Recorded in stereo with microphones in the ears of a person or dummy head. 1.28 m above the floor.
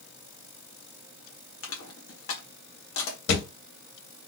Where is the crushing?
65° left (ahead or behind), 1.3 m.